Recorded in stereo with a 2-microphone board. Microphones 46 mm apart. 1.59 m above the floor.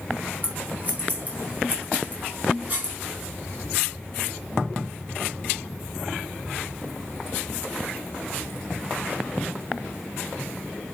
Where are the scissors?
35° right (ahead or behind), 3.5 m.